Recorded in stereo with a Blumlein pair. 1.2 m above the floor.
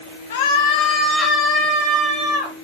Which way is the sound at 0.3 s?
55° left.